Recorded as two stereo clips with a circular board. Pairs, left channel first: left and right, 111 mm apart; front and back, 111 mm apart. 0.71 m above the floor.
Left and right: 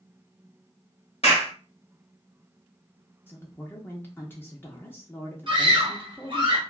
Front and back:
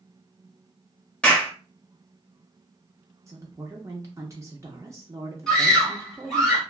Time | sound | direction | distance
1.2 | a clap | 80° left | 1.2 m
3.3 | a woman speaking | 145° left | 0.5 m
5.5 | a scream | 80° right | 0.9 m